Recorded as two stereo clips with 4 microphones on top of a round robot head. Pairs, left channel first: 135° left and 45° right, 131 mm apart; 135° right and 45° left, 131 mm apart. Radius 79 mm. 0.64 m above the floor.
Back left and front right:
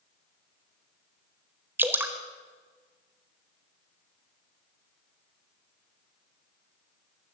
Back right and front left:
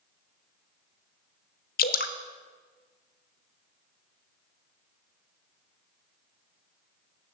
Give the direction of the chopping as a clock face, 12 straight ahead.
I don't hear chopping.